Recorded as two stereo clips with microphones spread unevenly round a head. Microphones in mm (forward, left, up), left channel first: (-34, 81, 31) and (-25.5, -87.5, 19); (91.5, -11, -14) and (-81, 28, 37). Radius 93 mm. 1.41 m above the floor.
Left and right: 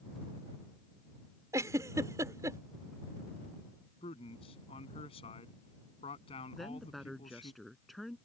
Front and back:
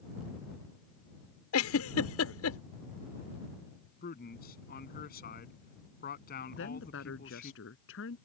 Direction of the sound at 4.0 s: 30° left.